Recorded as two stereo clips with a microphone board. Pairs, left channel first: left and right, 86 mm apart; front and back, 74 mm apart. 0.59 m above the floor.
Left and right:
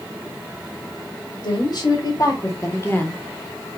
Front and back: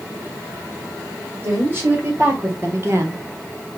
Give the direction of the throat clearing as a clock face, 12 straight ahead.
No throat clearing in this recording.